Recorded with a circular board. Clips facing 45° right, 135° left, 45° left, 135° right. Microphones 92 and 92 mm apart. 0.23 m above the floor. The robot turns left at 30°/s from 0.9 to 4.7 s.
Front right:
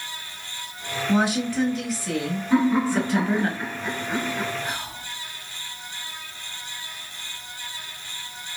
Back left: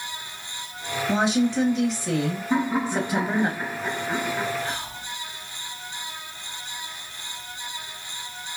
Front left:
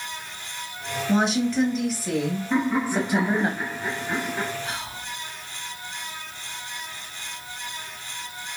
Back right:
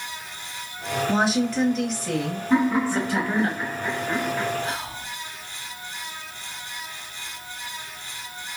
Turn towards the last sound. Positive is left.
turn(degrees=-120)